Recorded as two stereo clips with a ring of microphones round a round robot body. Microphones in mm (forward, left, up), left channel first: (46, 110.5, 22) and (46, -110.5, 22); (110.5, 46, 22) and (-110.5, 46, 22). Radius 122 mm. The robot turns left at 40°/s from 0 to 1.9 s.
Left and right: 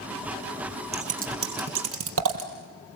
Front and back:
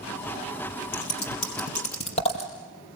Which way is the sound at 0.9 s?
30° right.